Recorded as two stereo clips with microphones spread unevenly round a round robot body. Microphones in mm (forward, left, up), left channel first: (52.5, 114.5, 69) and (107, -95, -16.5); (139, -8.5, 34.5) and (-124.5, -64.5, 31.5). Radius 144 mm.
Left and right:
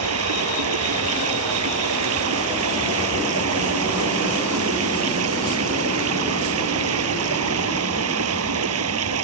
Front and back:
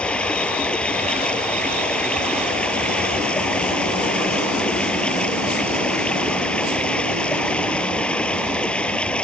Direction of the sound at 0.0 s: 75° right.